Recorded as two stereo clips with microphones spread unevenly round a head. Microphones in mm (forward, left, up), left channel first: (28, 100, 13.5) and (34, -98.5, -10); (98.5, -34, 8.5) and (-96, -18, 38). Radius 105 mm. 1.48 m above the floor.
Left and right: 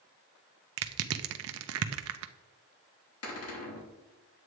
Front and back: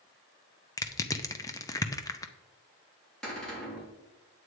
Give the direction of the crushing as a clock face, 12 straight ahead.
3 o'clock.